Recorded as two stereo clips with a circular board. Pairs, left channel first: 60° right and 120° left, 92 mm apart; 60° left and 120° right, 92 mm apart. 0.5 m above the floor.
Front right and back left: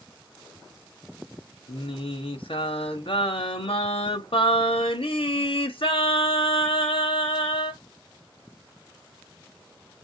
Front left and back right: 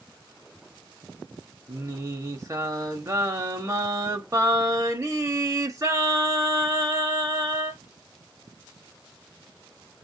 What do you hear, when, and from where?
1.7 s singing: 65° right, 1.0 m